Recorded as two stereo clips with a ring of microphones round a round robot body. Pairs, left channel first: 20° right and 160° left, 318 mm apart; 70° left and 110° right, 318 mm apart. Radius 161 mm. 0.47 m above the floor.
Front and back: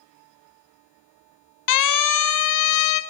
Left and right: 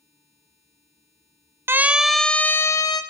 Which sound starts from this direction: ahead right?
A siren, at 1.7 s.